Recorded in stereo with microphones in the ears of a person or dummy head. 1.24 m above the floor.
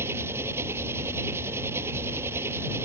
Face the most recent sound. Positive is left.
turn(degrees=-15)  # may be behind; listen again after turning